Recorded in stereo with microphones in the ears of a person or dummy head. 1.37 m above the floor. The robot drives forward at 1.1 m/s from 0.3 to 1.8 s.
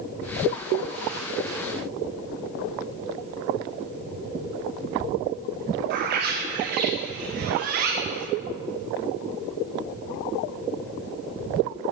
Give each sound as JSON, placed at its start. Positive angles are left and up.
{"t": 5.9, "sound": "a bird", "side_deg": -50, "distance_m": 0.8}